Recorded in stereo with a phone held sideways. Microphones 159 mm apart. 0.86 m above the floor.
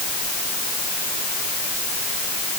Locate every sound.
Only background noise.